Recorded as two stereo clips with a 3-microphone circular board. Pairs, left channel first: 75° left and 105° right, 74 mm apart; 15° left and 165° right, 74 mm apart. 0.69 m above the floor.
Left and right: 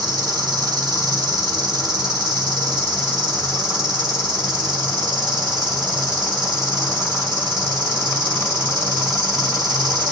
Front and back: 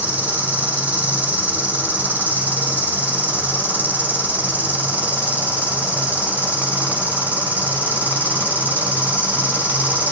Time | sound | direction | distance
0.0 | an insect | 95° right | 1.2 m